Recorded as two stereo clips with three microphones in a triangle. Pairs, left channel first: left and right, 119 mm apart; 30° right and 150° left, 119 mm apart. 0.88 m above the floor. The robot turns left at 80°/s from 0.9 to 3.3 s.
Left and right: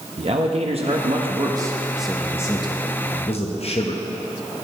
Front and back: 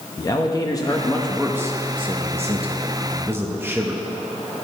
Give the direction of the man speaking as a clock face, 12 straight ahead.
3 o'clock.